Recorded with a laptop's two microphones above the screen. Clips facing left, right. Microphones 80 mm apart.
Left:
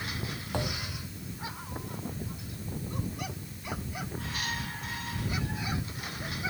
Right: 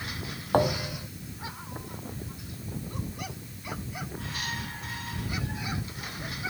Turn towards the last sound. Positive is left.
turn(degrees=-45)  # may be behind; listen again after turning